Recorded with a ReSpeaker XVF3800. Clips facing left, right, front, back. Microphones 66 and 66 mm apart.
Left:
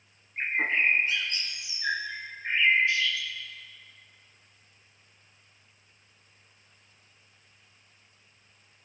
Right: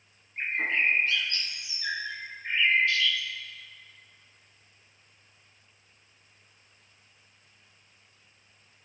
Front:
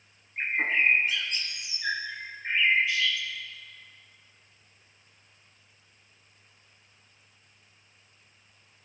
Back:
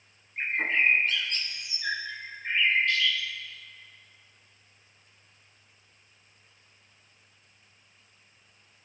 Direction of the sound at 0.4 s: 60° left.